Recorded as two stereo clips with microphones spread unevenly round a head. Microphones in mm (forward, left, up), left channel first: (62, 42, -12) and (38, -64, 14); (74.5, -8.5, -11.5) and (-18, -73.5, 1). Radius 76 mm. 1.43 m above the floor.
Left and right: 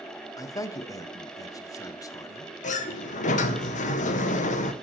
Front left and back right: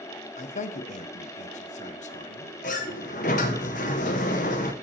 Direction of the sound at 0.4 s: 15° left.